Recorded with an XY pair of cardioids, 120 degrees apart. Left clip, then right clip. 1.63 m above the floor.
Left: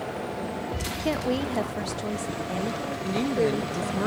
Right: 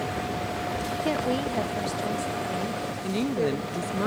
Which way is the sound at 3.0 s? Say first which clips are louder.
Left 2 dB; straight ahead.